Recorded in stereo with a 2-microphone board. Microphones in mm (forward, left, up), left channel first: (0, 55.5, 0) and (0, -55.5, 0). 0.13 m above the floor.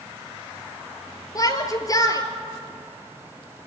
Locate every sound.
1.4 s a shout: 35° left (ahead or behind), 3 m